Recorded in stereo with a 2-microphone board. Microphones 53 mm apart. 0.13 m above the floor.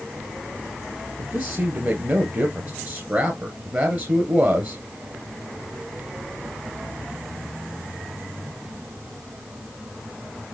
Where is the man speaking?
30° right (ahead or behind), 2 m.